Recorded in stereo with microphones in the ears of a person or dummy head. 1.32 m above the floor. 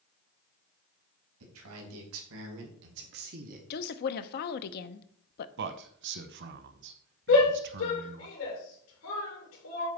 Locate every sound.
1.4 s a man speaking: 80° right, 2.5 m; by 3.6 s 40° right (ahead or behind), 1.1 m
3.7 s a woman speaking: 50° left (ahead or behind), 0.7 m
5.6 s a man speaking: 55° right (ahead or behind), 0.8 m
7.3 s a shout: 75° left (ahead or behind), 2.5 m